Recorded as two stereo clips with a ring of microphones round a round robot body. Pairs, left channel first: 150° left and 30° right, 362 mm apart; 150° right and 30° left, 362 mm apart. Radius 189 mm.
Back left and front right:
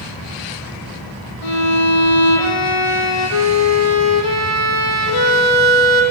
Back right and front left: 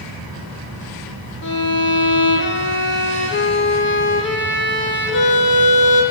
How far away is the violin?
About 4 m.